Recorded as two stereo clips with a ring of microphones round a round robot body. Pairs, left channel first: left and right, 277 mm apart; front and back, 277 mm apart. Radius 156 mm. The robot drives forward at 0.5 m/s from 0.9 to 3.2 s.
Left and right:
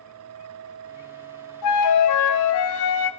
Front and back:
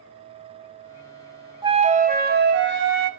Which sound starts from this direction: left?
A flute, at 1.6 s.